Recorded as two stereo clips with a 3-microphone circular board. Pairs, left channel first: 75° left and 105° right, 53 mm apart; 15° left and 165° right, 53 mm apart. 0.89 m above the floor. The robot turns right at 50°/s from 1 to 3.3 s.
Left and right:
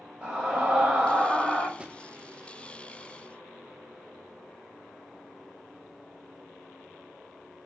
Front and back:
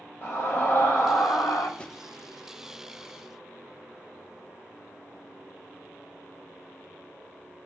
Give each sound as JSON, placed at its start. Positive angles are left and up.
{"t": 0.2, "sound": "a scream", "azimuth_deg": -30, "distance_m": 4.5}
{"t": 1.8, "sound": "a drawer", "azimuth_deg": -45, "distance_m": 0.5}